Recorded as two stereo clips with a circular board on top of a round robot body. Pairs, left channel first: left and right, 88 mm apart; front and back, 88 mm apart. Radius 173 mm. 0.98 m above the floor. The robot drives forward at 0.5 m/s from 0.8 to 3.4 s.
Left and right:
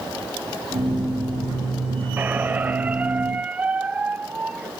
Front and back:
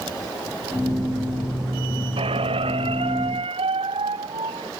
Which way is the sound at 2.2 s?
160° right.